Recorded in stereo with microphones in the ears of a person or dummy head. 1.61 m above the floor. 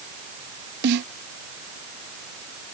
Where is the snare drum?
60° right (ahead or behind).